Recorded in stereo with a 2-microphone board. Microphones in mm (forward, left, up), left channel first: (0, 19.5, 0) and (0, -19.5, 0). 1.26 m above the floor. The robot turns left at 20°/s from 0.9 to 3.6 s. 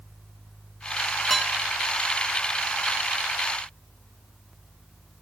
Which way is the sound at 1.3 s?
15° left (ahead or behind).